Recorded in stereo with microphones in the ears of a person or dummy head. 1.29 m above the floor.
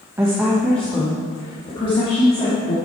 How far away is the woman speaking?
About 1.1 m.